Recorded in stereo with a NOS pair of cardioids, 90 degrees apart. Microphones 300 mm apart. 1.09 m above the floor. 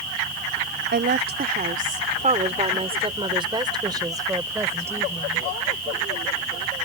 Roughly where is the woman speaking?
Ahead right.